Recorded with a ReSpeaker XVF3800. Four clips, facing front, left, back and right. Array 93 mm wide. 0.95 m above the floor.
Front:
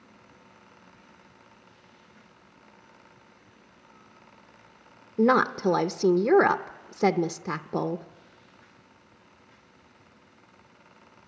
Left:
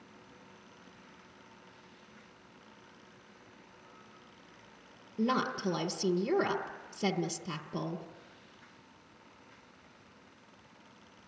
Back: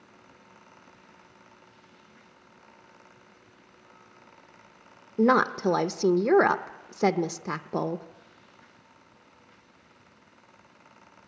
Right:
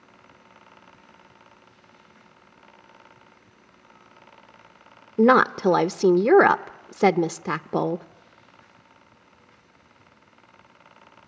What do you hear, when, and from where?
5.2 s a woman speaking: 95° right, 0.5 m